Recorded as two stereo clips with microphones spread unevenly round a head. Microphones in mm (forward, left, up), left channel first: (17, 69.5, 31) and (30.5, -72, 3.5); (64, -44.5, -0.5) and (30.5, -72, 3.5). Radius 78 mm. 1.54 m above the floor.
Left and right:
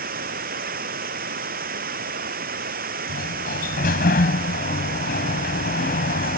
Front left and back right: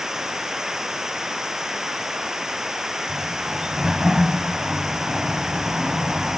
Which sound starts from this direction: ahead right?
Running water, at 0.0 s.